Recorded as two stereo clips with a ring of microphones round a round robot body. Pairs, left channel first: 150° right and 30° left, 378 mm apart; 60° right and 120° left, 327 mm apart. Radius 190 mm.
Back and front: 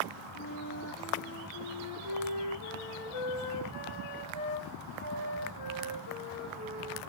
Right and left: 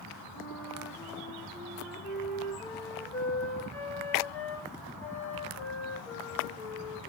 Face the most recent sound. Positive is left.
turn(degrees=-145)